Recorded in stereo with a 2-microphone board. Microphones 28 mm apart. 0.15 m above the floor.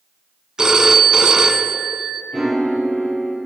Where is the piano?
20° right (ahead or behind), 3 m.